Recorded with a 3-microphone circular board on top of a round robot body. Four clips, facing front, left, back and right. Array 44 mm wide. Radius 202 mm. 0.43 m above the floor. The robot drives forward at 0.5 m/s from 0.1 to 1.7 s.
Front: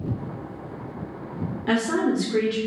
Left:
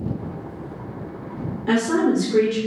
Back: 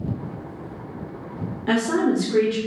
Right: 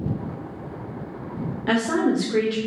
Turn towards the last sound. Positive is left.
turn(degrees=-95)